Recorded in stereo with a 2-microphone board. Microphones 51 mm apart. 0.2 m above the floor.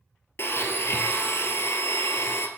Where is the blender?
50° left (ahead or behind), 1.2 m.